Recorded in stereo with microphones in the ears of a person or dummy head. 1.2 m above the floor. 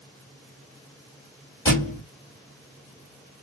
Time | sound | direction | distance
1.6 | a thud | 15° left (ahead or behind) | 1.4 m